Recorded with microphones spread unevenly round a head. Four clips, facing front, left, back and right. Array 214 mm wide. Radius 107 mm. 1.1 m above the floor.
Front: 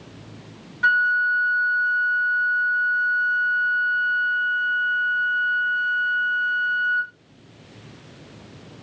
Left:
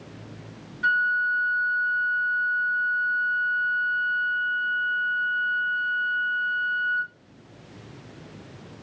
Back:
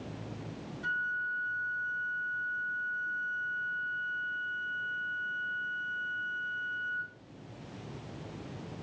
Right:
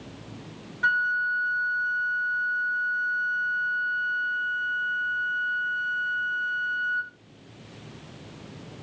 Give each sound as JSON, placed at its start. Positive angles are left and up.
{"t": 0.8, "sound": "a flute", "azimuth_deg": -20, "distance_m": 1.0}